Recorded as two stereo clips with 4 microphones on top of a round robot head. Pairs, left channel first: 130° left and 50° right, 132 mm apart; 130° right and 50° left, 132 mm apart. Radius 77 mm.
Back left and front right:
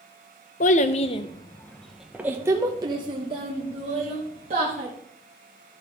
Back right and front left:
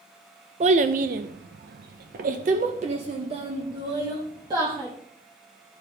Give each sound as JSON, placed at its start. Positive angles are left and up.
{"t": 0.6, "sound": "a child speaking", "azimuth_deg": 95, "distance_m": 0.9}